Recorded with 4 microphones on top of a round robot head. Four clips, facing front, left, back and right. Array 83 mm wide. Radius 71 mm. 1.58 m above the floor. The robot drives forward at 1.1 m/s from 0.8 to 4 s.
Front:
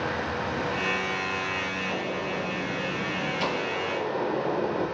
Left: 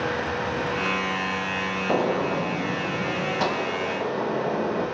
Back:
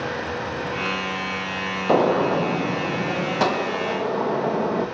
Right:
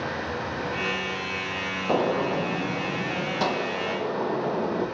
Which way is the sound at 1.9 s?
Straight behind.